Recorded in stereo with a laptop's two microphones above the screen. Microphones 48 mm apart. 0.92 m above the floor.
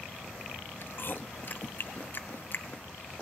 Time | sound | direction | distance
0.8 | chewing | 50° left (ahead or behind) | 0.6 m